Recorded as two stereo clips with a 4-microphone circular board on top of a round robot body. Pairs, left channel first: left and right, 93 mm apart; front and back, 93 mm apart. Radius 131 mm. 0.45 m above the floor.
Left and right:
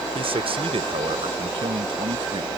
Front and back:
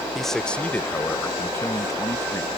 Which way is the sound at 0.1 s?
90° right.